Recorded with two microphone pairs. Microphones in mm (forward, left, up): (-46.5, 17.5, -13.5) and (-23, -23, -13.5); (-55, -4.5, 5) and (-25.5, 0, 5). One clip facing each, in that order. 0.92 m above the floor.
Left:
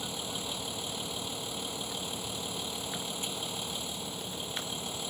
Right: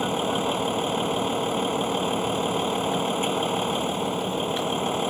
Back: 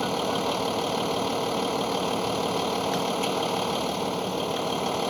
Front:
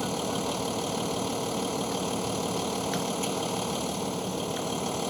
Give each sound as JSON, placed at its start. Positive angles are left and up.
{"t": 0.0, "sound": "a vehicle", "azimuth_deg": -100}